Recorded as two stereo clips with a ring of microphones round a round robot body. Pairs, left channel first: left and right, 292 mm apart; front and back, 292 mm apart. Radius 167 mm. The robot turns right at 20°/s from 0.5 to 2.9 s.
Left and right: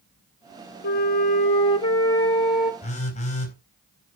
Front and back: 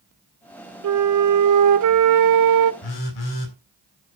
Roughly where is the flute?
Behind left.